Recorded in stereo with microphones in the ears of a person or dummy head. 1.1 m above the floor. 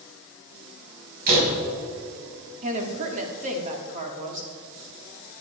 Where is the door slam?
50° right (ahead or behind), 6.5 m.